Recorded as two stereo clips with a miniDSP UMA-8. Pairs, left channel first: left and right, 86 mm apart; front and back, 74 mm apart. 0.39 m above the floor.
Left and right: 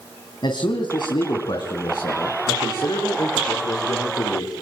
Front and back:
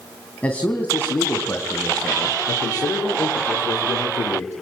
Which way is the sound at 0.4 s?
70° left.